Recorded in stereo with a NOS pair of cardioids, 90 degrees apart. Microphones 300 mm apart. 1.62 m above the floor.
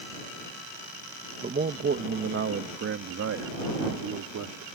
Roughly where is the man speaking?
Ahead right.